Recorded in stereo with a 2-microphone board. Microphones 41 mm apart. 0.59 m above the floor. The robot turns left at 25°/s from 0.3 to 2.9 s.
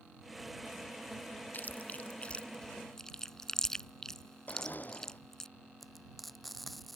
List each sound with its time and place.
1.5 s chewing: 45° left (ahead or behind); by 5.5 s 10° left (ahead or behind)
4.5 s a blender: 45° left (ahead or behind)
5.8 s frying: centre (ahead or behind)